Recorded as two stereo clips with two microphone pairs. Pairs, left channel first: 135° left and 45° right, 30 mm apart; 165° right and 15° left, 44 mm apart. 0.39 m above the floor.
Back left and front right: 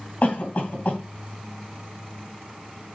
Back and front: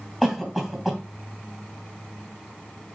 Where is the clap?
I don't hear a clap.